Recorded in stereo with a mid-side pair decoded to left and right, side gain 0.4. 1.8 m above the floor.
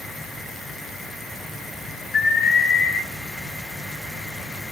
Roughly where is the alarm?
Ahead left.